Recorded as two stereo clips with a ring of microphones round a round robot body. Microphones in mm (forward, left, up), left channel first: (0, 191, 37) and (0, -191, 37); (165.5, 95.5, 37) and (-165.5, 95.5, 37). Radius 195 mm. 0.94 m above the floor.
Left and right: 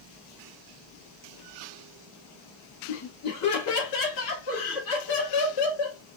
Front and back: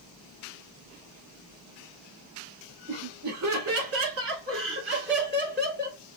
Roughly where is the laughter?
Behind left.